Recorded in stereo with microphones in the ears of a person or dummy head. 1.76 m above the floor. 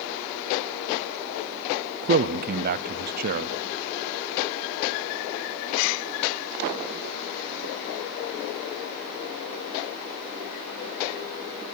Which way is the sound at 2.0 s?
50° right (ahead or behind).